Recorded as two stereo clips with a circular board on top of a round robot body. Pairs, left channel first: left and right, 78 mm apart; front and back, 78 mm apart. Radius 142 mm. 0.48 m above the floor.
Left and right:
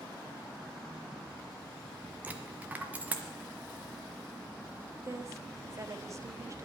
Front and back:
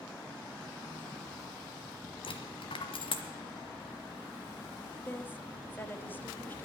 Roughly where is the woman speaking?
Ahead right.